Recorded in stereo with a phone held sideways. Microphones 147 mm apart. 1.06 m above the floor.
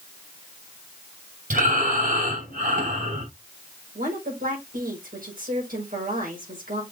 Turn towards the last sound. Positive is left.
turn(degrees=-75)  # may be behind; listen again after turning